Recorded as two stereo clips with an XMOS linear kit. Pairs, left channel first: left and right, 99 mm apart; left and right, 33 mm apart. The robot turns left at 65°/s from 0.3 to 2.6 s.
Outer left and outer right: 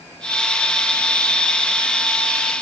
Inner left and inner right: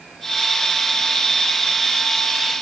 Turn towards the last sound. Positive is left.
No sound to turn to.